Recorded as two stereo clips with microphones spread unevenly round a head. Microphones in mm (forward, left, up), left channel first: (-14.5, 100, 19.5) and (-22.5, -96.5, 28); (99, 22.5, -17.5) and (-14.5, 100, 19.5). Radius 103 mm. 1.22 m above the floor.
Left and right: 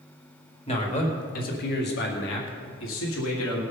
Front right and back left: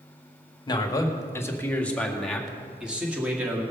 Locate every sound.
0.7 s a man speaking: 25° left, 1.9 m; by 3.6 s 70° left, 2.5 m